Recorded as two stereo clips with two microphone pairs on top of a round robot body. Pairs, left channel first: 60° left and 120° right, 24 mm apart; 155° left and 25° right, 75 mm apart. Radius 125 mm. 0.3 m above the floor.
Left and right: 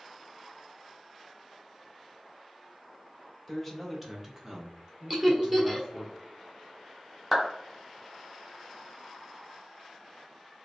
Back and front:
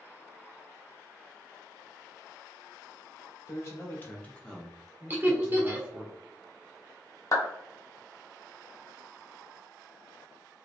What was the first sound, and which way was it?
A man speaking, 145° left.